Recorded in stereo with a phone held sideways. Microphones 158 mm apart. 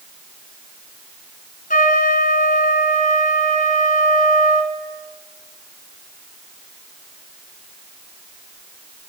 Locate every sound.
1.7 s a trumpet: 70° left (ahead or behind), 3 m